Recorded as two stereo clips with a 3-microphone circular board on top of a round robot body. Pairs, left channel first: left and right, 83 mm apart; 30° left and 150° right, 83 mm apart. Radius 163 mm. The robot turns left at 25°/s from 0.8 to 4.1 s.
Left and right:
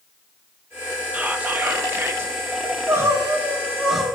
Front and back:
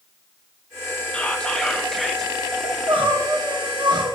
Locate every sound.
1.1 s whispering: 35° right, 1.3 m; by 2.3 s 65° right, 1.3 m
2.6 s crying: 145° right, 1.6 m; by 4.1 s straight behind, 1.6 m